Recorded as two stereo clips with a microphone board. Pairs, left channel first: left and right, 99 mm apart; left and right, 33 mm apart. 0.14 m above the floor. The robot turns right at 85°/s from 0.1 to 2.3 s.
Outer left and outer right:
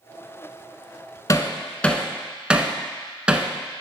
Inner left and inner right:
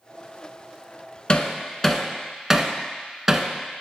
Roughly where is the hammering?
Left.